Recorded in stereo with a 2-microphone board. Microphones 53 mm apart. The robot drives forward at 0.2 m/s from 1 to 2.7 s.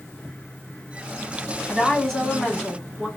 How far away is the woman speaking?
About 1.0 m.